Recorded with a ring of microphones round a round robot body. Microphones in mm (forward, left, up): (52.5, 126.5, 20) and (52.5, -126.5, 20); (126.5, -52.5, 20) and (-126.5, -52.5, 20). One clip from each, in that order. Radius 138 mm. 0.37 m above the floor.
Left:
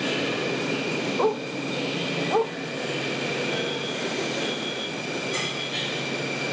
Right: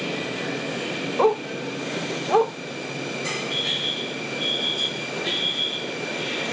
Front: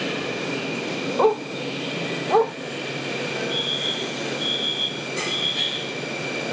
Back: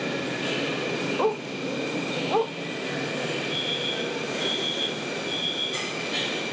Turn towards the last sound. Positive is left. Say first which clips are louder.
# right 3 dB, front 5 dB
turn(degrees=-65)